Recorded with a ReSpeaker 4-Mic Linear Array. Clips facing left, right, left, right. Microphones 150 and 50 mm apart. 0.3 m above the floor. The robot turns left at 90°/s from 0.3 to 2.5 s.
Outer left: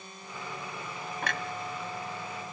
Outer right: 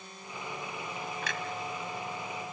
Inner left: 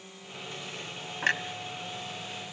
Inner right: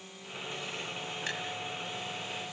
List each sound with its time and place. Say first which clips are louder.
1.2 s a clunk: outer left 6 dB, inner left 11 dB; 55° left (ahead or behind), 1.2 m; by 1.4 s 60° left (ahead or behind), 1.2 m